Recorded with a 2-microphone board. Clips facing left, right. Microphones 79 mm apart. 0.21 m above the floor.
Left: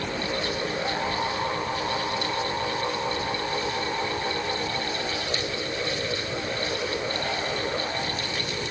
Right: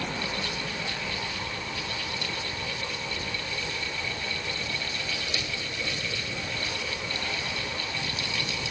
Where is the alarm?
I don't hear an alarm.